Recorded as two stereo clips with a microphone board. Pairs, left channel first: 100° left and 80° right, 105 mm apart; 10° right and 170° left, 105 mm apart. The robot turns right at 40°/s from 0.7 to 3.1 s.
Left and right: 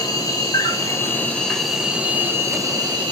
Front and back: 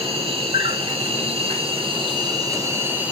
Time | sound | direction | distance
0.0 | an insect | 150° left | 1.3 m